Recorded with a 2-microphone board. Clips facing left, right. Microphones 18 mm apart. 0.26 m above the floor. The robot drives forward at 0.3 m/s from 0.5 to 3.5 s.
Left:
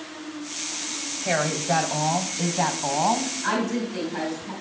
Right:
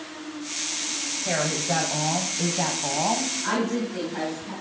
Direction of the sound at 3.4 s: 10° left (ahead or behind).